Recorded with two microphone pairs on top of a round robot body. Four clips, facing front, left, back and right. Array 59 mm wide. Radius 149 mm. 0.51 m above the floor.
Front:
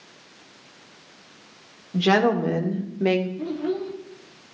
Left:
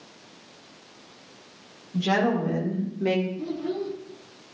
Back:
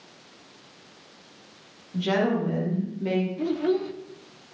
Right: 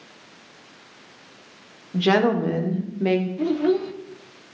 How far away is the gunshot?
No gunshot in this recording.